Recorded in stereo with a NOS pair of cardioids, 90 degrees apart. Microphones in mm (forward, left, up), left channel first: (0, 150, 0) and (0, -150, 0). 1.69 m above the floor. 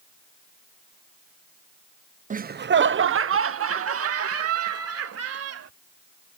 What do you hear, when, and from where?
2.3 s laughter: 25° right; by 5.7 s 55° right